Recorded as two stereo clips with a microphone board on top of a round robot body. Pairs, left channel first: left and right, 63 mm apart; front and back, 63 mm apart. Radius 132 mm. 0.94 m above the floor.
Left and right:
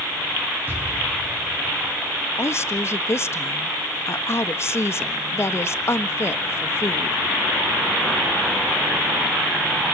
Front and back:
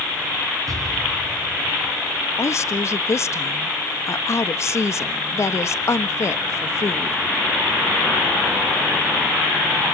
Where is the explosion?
150° right, 3.5 m.